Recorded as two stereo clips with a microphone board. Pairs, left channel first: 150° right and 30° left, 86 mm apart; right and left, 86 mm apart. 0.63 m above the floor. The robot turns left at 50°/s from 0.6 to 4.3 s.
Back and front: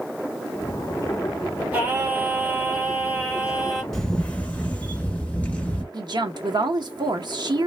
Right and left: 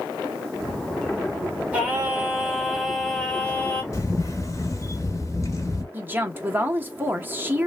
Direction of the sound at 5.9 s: 25° left.